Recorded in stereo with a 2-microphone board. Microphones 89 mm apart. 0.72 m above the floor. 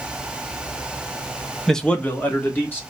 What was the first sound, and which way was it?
A man speaking, 5° left (ahead or behind).